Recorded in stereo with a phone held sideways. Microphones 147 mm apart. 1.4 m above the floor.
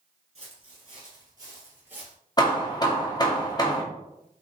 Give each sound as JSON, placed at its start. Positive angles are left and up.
{"t": 0.3, "sound": "footsteps", "side_deg": -40, "distance_m": 2.0}
{"t": 2.4, "sound": "hammering", "side_deg": 25, "distance_m": 0.8}